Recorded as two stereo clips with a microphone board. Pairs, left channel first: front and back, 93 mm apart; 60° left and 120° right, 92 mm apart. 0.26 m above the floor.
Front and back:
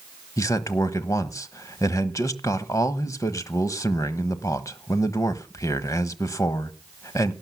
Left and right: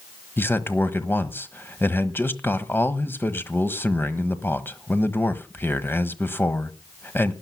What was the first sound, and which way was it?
A man speaking, 10° left.